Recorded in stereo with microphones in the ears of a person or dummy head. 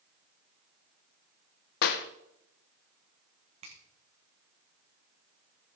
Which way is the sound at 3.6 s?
40° right (ahead or behind).